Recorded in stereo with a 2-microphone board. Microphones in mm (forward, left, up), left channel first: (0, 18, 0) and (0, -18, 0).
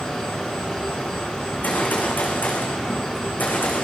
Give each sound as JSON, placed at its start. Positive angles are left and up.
{"t": 1.4, "sound": "a gunshot", "side_deg": 50, "distance_m": 6.5}